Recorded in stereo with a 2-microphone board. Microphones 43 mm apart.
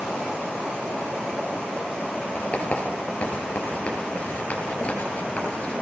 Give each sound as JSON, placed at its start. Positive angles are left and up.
{"t": 2.4, "sound": "writing", "side_deg": 35, "distance_m": 5.5}